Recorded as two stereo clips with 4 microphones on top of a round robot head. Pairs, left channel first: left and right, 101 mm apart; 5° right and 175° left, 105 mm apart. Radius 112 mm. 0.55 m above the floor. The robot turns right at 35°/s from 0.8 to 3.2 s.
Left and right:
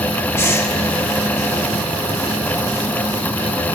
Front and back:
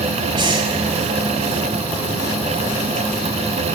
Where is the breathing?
145° left, 2 m.